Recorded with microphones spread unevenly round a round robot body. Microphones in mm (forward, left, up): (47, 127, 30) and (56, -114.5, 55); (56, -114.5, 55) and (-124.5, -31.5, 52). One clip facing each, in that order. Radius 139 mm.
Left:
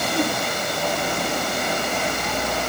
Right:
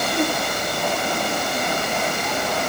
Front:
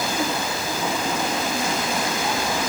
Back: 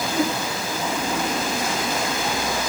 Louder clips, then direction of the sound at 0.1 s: Even, back 5 dB; 125° left.